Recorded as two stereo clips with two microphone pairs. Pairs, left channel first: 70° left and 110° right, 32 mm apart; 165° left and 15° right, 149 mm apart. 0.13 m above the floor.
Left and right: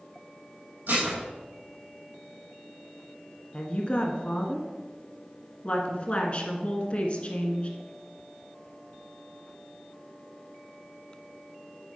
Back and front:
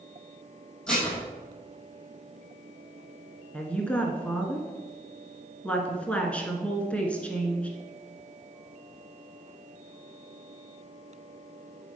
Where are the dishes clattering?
110° right, 3 m.